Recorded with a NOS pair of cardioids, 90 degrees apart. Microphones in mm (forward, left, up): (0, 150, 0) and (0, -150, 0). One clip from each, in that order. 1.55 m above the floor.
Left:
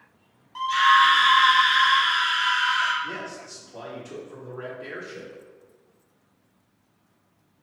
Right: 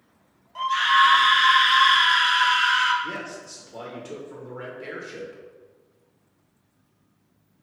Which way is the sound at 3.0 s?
35° right.